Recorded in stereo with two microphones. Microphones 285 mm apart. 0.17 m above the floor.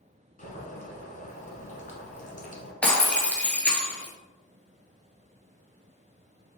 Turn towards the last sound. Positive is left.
turn(degrees=5)  # may be behind; listen again after turning